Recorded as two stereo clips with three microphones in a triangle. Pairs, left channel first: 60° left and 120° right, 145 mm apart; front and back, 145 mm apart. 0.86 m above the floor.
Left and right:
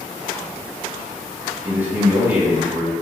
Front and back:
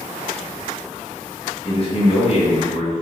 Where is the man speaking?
45° right, 1.1 m.